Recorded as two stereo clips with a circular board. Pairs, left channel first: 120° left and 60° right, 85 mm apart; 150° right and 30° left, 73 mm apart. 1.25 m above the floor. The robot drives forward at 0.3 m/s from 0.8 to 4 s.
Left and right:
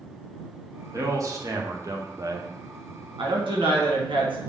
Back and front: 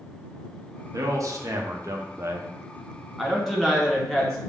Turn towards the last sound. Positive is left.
turn(degrees=-70)